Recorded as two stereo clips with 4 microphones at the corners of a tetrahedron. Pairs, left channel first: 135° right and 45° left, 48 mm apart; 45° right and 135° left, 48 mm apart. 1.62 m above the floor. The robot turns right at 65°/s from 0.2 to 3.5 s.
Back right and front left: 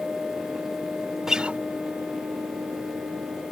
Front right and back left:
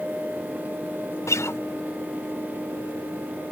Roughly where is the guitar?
Ahead right.